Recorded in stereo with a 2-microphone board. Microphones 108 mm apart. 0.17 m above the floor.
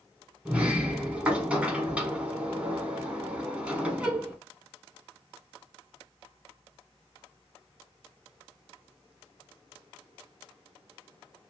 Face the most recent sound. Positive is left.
turn(degrees=-10)  # may be behind; listen again after turning